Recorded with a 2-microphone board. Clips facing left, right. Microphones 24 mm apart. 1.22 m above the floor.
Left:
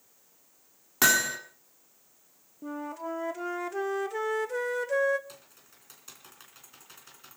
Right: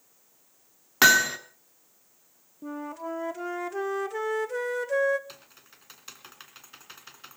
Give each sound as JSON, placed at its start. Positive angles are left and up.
{"t": 1.0, "sound": "hammering", "side_deg": -30, "distance_m": 1.8}
{"t": 2.6, "sound": "a flute", "side_deg": 0, "distance_m": 0.7}
{"t": 5.3, "sound": "typing on a keyboard", "side_deg": -30, "distance_m": 2.5}